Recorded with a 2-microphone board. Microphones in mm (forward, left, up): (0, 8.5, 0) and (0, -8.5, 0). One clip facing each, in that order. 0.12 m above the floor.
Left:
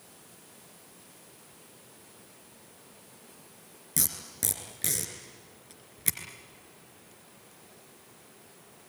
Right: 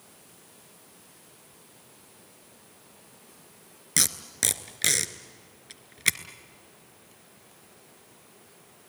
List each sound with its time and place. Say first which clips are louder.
4.0 s tape being pulled: right 7 dB; 45° right (ahead or behind), 1.5 m